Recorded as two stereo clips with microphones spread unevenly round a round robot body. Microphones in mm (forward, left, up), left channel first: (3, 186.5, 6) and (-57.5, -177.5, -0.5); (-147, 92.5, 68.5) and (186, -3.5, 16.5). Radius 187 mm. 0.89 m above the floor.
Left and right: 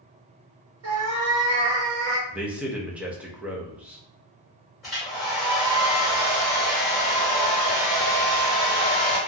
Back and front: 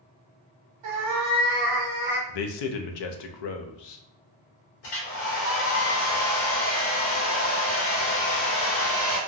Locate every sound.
0.8 s a cat meowing: 40° right, 0.8 m; by 2.2 s 90° right, 0.9 m
2.3 s a man speaking: 175° left, 0.5 m
4.8 s a hair dryer: 170° left, 1.3 m